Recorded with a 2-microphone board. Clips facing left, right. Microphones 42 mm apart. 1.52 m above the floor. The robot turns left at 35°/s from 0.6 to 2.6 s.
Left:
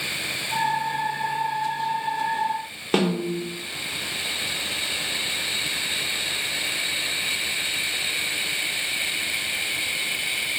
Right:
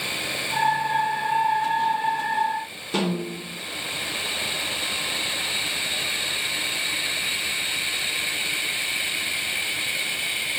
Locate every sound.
2.9 s a snare drum: 55° left (ahead or behind), 0.8 m